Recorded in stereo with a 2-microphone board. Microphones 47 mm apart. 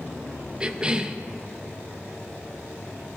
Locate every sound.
0.6 s a cough: 20° right (ahead or behind), 0.7 m